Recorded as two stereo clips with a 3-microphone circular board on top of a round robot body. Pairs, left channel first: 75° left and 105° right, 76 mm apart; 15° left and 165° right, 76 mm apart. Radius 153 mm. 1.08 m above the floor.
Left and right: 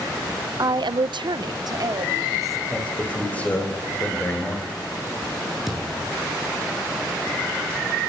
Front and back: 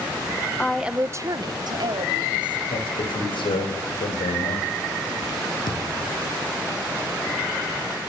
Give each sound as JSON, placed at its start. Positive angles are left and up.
{"t": 0.6, "sound": "a woman speaking", "azimuth_deg": -65, "distance_m": 0.7}
{"t": 2.7, "sound": "a man speaking", "azimuth_deg": 5, "distance_m": 5.5}
{"t": 5.7, "sound": "a thud", "azimuth_deg": -15, "distance_m": 6.0}